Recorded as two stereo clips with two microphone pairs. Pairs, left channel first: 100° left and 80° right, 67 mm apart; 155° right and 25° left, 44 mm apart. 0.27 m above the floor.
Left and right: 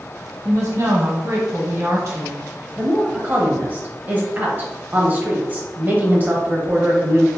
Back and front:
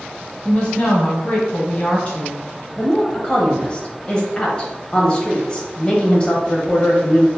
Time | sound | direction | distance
0.5 | a woman speaking | 95° right | 1.6 m
2.8 | a woman speaking | 110° right | 1.0 m